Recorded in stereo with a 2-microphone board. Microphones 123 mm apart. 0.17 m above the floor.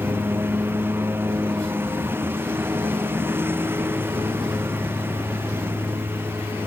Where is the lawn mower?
20° right (ahead or behind).